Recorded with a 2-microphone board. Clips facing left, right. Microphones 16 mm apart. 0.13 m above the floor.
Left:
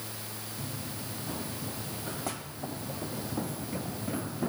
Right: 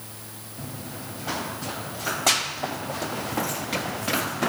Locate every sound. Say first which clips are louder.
0.6 s running footsteps: right 5 dB; 75° right (ahead or behind)